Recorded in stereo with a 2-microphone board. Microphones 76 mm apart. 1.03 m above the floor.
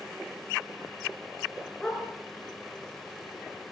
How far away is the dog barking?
About 6.5 m.